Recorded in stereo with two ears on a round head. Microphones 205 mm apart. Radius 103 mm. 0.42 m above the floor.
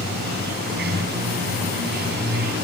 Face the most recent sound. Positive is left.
turn(degrees=-50)  # may be behind; listen again after turning